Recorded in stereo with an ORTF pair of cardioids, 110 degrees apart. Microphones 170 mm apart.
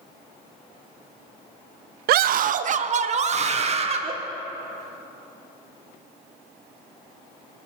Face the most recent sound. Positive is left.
turn(degrees=-35)